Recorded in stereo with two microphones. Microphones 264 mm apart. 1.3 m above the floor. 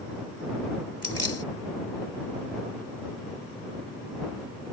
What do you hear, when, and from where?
1.0 s keys jangling: 60° left (ahead or behind)